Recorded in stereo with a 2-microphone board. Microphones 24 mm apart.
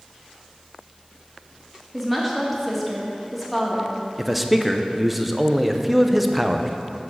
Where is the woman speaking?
Centre (ahead or behind), 1.9 m.